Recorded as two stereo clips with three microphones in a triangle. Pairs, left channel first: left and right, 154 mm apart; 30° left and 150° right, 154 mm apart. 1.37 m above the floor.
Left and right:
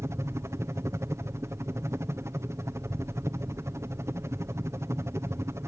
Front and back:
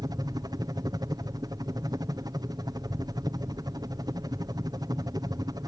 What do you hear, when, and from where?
0.0 s a helicopter: 135° right